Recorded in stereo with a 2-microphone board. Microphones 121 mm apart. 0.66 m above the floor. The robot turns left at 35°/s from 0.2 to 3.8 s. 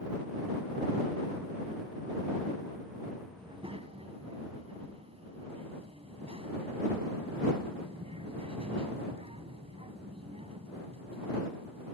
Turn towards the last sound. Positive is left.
turn(degrees=-55)  # may be behind; listen again after turning